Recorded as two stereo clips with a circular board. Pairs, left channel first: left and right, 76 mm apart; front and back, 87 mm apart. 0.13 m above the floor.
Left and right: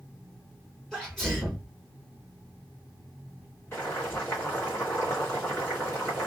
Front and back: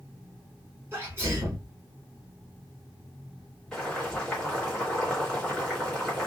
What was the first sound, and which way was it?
A sneeze, 170° left.